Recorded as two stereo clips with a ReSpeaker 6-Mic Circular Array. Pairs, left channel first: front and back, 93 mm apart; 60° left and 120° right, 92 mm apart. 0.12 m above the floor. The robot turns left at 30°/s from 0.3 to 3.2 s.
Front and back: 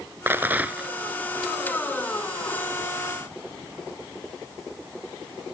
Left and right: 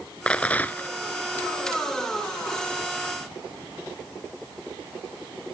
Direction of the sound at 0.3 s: 130° left.